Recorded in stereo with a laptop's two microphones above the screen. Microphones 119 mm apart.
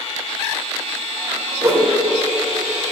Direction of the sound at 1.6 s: 20° right (ahead or behind).